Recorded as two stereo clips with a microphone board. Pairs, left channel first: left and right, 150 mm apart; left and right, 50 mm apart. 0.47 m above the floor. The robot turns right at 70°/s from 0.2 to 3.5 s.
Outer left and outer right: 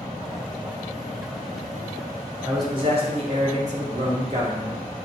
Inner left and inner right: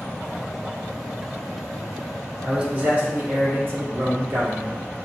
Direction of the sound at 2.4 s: 160° right.